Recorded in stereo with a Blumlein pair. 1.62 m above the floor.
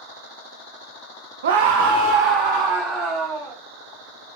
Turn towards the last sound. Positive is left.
turn(degrees=-10)